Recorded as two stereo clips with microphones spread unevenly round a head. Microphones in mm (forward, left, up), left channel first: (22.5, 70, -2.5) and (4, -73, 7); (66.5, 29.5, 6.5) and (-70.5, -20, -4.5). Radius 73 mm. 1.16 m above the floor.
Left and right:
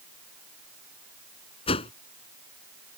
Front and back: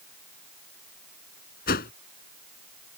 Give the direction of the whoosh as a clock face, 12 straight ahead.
11 o'clock.